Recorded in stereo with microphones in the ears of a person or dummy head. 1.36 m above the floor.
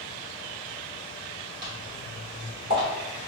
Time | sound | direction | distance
1.6 | footsteps | 10° right (ahead or behind) | 1.3 m